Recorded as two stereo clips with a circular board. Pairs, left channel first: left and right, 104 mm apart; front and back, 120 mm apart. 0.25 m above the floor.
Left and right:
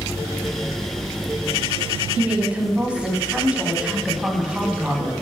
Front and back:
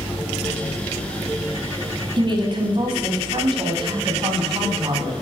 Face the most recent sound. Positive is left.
turn(degrees=-165)